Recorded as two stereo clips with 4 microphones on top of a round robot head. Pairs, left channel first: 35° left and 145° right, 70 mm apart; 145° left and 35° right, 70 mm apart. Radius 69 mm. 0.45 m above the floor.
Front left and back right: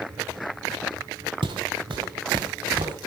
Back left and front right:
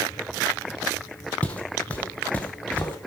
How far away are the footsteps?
About 1.3 m.